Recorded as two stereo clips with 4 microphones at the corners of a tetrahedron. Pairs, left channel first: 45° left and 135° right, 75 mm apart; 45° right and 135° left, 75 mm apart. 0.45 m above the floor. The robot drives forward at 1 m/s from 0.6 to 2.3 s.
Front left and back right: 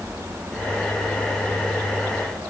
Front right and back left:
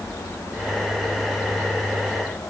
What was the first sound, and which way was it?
Only background noise.